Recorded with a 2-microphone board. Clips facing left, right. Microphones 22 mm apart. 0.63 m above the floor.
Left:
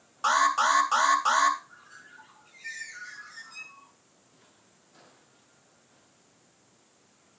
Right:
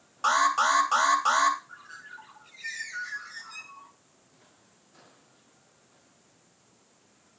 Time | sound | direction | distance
0.2 | an alarm | centre (ahead or behind) | 2.5 m
1.7 | a bird | 55° right (ahead or behind) | 3 m